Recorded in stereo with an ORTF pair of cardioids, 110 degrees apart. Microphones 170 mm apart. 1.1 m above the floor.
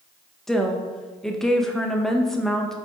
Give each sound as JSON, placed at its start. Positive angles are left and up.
{"t": 0.5, "sound": "a woman speaking", "azimuth_deg": 5, "distance_m": 0.6}